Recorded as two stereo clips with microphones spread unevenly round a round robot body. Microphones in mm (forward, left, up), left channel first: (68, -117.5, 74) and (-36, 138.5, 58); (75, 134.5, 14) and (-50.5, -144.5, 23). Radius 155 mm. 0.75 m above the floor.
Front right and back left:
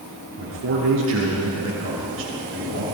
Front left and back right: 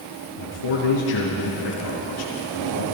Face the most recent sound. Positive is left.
turn(degrees=70)